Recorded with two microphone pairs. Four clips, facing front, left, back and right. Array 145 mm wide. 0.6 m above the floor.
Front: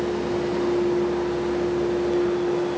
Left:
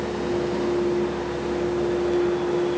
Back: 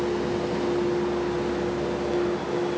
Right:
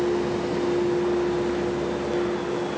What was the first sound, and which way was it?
Only background noise.